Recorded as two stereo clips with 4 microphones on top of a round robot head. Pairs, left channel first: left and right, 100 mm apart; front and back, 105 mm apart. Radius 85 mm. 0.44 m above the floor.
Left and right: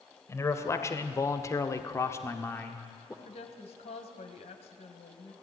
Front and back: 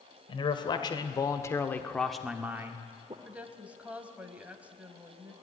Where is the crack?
No crack in this recording.